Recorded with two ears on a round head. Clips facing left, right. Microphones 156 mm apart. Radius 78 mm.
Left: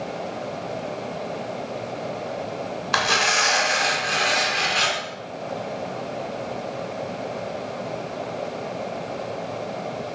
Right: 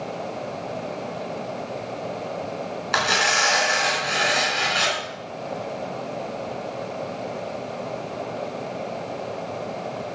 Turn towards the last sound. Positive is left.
turn(degrees=-5)  # may be behind; listen again after turning